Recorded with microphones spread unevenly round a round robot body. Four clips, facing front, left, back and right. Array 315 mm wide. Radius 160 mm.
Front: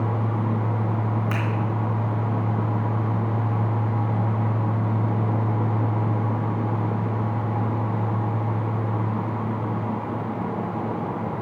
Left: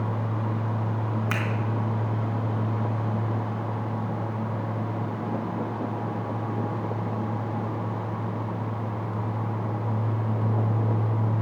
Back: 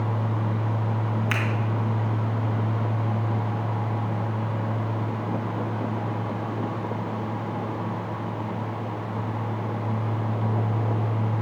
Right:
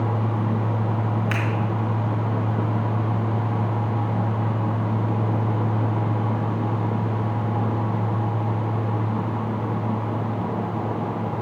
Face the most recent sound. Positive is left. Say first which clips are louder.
# right 3 dB, front 1 dB
turn(degrees=120)